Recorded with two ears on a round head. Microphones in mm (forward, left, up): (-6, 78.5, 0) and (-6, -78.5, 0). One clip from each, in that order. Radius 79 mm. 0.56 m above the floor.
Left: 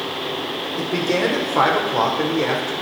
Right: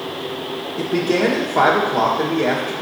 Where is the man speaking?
35° left (ahead or behind), 2.0 m.